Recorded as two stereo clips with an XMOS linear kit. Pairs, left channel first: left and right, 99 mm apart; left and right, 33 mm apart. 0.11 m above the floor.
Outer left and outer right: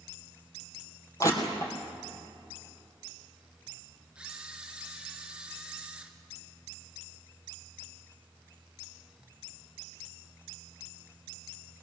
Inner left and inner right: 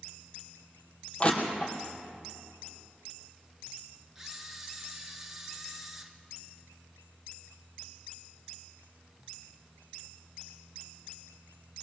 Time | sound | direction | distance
1.2 | crushing | 30° left (ahead or behind) | 2.5 m
4.2 | a camera shutter | 10° right (ahead or behind) | 1.6 m